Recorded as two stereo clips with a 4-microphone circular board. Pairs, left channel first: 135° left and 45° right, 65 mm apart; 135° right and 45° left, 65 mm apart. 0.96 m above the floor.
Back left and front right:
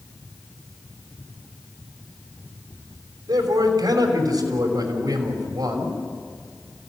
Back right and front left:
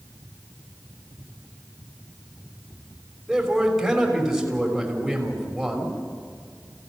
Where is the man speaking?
45° right, 5.5 m.